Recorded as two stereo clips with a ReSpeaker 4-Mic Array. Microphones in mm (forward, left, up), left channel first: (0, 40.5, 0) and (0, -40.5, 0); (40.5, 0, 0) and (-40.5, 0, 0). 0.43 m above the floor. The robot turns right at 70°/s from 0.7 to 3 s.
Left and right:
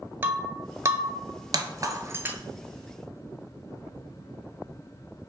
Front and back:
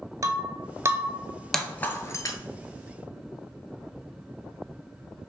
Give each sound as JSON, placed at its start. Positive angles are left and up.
{"t": 0.2, "sound": "breaking glass", "azimuth_deg": -145, "distance_m": 0.5}